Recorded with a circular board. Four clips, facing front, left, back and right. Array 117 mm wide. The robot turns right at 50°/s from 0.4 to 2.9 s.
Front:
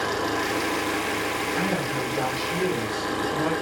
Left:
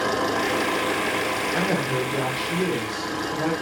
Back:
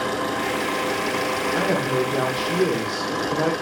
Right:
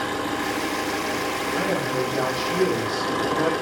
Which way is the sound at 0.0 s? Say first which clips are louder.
Left 3 dB, back 1 dB; 105° left.